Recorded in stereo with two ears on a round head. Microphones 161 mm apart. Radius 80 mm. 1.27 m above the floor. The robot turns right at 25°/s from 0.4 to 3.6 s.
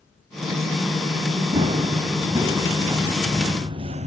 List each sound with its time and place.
1.5 s running footsteps: 30° right (ahead or behind), 3 m; by 4.1 s 40° right (ahead or behind), 1.7 m